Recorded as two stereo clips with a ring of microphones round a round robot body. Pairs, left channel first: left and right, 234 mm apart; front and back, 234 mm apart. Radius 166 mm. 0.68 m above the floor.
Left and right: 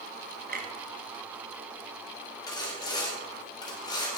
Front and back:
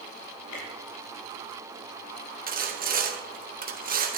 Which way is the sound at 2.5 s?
155° left.